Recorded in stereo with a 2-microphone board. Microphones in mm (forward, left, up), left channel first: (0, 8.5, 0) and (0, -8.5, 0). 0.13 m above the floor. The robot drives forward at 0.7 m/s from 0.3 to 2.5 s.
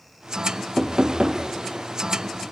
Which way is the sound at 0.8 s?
50° right (ahead or behind).